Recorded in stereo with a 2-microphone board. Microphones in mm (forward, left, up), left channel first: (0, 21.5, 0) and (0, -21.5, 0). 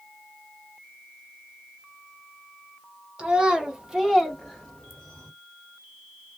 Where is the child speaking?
25° right (ahead or behind), 1.3 m; by 5.3 s 20° left (ahead or behind), 1.3 m.